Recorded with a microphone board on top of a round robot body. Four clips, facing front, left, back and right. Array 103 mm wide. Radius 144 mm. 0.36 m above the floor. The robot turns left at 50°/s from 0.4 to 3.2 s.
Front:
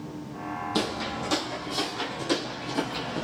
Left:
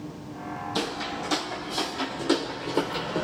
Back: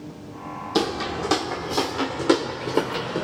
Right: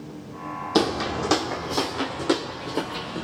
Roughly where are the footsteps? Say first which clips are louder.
Right 10 dB, back 8 dB; right.